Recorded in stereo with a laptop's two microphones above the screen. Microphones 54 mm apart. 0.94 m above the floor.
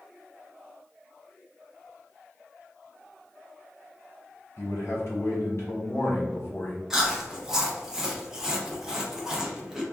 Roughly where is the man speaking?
Left.